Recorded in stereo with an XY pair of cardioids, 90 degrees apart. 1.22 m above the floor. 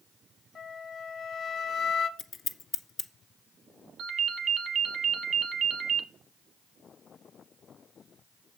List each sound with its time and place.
0.6 s a flute: 50° left, 1.1 m
2.2 s scissors: 55° left, 1.5 m
4.0 s a ringtone: 70° right, 1.0 m